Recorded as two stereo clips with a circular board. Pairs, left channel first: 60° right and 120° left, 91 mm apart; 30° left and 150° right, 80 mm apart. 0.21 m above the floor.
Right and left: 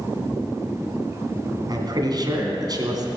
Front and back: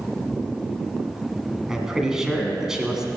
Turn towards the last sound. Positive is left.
turn(degrees=130)